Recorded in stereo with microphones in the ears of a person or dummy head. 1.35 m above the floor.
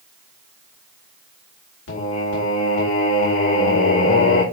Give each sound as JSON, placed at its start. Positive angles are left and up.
{"t": 1.9, "sound": "singing", "side_deg": 70, "distance_m": 2.5}